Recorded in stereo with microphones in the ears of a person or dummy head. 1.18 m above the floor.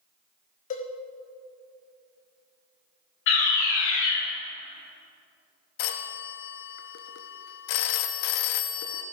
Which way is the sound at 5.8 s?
65° left (ahead or behind).